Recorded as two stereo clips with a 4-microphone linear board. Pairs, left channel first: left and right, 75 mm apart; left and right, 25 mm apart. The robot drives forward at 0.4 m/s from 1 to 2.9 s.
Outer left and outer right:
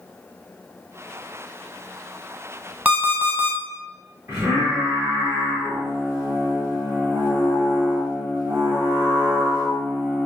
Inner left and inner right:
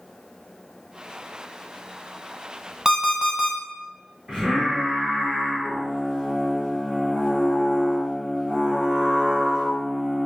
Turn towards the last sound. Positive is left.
turn(degrees=-35)  # may be behind; listen again after turning